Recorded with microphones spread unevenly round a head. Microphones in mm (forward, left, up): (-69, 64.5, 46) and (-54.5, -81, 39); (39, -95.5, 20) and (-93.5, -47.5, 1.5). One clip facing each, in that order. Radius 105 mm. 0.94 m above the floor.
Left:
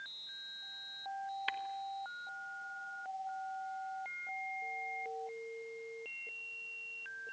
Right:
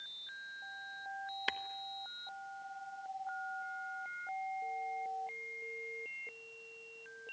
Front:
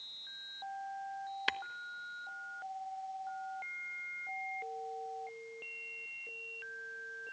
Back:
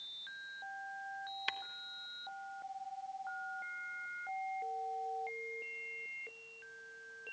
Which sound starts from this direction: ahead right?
Tapping, at 1.5 s.